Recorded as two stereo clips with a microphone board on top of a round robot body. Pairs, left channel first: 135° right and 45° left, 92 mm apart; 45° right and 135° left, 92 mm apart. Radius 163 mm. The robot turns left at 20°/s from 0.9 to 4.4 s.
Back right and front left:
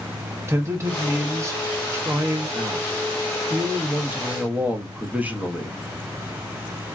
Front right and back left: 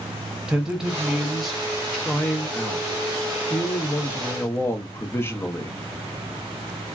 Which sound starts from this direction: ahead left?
A man speaking, at 0.5 s.